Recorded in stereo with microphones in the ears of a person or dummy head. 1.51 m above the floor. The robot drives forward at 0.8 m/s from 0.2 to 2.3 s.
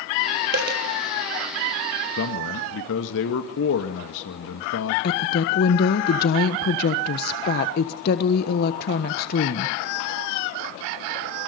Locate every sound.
0.5 s a dropped coin: 60° right (ahead or behind), 5.5 m
2.2 s a man speaking: 80° left, 1.9 m
5.0 s a woman speaking: 55° left (ahead or behind), 1.2 m